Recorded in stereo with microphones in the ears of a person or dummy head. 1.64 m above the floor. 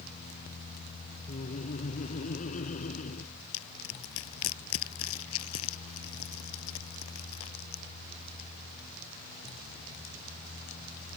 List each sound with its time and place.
1.3 s laughter: 40° left (ahead or behind); by 3.3 s 45° left (ahead or behind)
3.5 s crushing: 85° left